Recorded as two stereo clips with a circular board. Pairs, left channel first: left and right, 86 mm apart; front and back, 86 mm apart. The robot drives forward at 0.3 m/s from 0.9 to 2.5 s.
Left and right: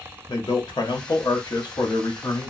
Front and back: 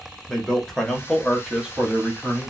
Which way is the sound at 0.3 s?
85° left.